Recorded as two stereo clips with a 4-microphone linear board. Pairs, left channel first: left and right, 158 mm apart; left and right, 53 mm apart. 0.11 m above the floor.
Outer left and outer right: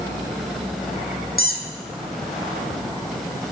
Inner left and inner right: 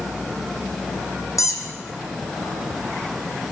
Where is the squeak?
70° left (ahead or behind), 1.2 m.